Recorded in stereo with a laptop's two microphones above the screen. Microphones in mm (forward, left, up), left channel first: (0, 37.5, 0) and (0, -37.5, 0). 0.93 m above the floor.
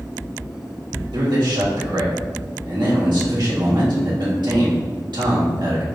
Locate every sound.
1.1 s a man speaking: 70° right (ahead or behind), 1.5 m